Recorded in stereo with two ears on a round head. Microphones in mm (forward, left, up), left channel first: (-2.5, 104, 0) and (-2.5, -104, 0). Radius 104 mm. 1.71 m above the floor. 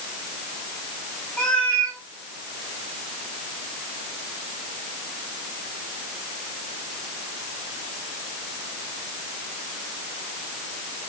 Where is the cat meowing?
5° left (ahead or behind), 1.9 m.